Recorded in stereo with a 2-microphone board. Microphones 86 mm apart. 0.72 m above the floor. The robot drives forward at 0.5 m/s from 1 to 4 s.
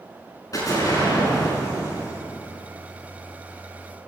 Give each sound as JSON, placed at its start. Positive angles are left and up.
{"t": 0.5, "sound": "an explosion", "side_deg": 40, "distance_m": 5.5}